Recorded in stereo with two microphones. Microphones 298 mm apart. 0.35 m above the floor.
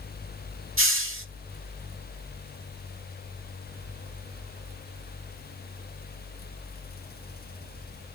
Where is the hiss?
45° right (ahead or behind), 0.8 m.